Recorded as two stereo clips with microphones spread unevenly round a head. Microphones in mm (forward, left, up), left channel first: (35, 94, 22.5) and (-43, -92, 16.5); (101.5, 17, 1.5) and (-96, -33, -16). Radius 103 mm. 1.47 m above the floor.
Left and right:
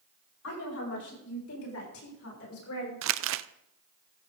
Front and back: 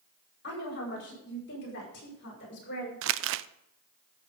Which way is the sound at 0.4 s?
55° left.